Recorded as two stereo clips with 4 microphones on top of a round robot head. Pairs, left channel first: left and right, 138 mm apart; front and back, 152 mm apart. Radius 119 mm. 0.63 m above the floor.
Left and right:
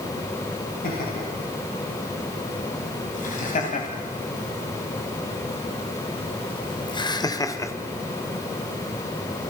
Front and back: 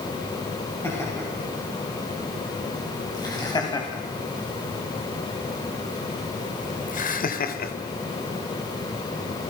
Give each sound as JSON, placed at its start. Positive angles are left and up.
{"t": 0.8, "sound": "laughter", "azimuth_deg": 75, "distance_m": 5.5}